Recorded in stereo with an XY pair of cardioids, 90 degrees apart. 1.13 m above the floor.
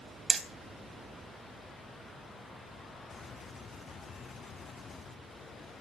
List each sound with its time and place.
0.3 s hammering: 40° right, 3 m